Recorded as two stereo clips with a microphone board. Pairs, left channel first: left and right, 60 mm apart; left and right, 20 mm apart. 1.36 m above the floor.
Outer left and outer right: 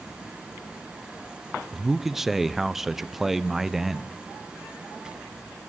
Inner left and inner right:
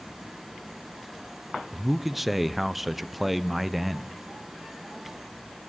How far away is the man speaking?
About 0.6 m.